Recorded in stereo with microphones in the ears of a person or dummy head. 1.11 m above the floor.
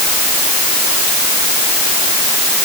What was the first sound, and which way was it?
Only background noise.